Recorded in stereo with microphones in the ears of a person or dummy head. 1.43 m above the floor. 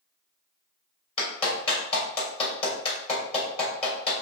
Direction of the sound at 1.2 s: 30° left (ahead or behind).